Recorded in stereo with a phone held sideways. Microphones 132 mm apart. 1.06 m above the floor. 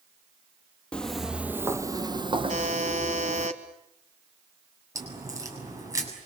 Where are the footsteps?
10° left (ahead or behind), 1.2 m; by 3.5 s 55° right (ahead or behind), 2 m.